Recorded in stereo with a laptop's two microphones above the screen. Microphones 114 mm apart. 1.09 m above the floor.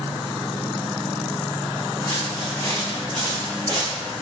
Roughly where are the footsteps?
Left.